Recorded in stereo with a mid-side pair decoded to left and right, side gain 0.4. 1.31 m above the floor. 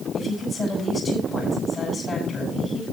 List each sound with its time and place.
0.1 s a woman speaking: 40° left, 10 m